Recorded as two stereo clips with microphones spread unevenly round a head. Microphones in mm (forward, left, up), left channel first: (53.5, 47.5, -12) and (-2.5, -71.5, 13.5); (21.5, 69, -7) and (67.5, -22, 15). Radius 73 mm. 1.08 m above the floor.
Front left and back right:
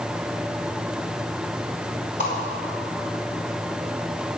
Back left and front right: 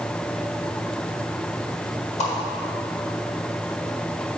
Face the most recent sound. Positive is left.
turn(degrees=115)